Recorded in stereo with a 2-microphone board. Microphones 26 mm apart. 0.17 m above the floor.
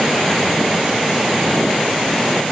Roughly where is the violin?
I don't hear a violin.